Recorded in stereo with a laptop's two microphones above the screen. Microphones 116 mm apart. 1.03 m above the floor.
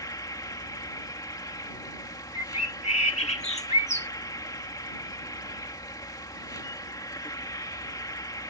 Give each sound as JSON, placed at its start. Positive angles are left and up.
{"t": 0.0, "sound": "an insect", "side_deg": 35}
{"t": 2.4, "sound": "a bird", "side_deg": 70}